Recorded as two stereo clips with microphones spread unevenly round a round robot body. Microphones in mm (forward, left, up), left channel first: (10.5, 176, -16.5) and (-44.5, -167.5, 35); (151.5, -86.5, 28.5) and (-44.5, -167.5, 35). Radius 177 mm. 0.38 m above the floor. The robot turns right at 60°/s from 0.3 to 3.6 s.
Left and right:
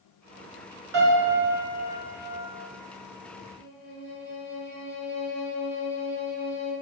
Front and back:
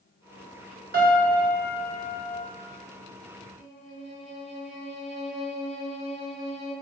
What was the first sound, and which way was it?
A piano, 115° right.